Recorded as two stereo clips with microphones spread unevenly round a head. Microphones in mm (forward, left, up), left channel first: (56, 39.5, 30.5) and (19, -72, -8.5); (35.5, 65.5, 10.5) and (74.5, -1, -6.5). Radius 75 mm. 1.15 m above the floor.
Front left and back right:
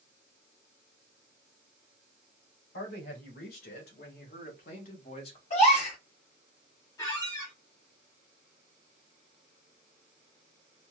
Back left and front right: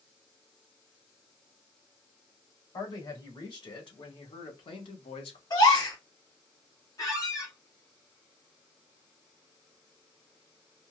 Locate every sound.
2.7 s a man speaking: 85° left, 2 m; by 5.4 s 135° left, 0.8 m
5.5 s a gasp: 100° left, 2 m
7.0 s a squeak: 120° left, 1.1 m